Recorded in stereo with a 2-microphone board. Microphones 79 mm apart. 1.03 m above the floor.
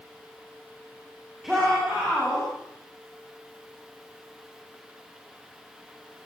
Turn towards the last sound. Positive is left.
turn(degrees=-5)  # may be behind; listen again after turning